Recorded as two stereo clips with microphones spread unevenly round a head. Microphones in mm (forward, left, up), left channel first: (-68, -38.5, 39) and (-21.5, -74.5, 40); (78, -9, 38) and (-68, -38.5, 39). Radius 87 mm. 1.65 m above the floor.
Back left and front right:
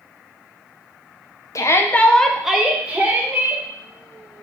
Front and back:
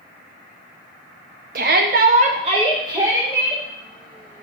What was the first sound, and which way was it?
A shout, 160° left.